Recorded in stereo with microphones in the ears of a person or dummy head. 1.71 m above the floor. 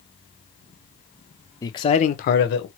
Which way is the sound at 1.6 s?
10° left (ahead or behind).